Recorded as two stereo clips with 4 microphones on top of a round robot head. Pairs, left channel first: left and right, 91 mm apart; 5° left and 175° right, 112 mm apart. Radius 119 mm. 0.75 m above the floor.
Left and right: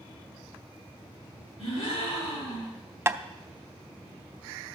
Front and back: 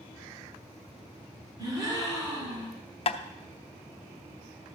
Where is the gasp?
125° left, 5 m.